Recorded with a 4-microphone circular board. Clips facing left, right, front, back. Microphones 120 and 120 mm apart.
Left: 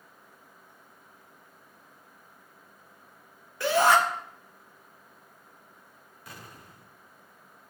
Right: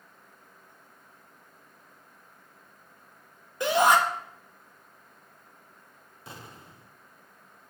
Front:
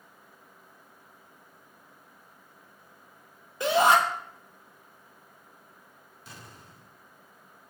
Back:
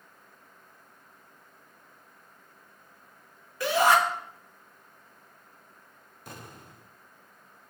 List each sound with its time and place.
3.6 s a shout: 40° right, 0.9 m
6.3 s an explosion: 150° right, 0.6 m